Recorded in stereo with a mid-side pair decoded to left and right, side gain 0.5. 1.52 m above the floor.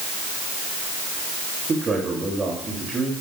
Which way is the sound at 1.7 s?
35° right.